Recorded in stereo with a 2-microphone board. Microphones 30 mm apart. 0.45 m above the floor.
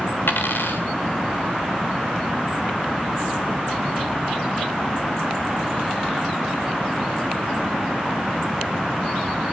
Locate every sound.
0.3 s a dropped coin: 80° left, 3 m